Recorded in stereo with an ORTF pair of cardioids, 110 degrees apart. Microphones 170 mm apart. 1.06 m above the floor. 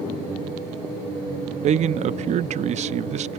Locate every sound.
1.6 s a man speaking: 45° right, 0.5 m